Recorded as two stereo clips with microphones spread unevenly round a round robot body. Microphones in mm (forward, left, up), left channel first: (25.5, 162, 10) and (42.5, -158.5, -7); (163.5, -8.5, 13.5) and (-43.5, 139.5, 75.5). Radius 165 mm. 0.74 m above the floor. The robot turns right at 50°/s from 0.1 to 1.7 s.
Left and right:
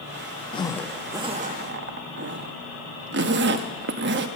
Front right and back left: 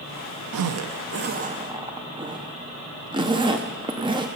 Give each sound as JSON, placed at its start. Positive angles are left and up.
{"t": 0.5, "sound": "a zipper", "azimuth_deg": 165, "distance_m": 0.7}